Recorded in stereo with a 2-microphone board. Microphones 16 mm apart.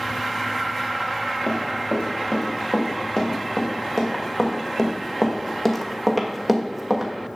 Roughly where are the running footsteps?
Left.